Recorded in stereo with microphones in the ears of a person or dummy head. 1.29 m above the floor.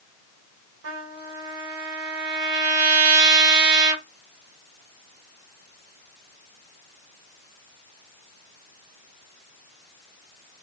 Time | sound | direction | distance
0.8 | a trumpet | 75° right (ahead or behind) | 2 m